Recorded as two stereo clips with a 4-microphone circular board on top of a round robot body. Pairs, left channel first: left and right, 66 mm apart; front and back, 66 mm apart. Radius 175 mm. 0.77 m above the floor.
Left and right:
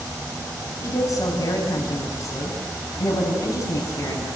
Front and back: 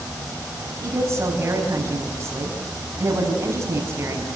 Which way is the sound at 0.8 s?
130° left.